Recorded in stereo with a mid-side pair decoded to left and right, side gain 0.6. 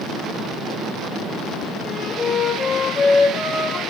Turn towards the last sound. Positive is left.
turn(degrees=40)